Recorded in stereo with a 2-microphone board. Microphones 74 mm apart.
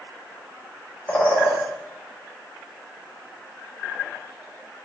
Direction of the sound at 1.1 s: 20° left (ahead or behind).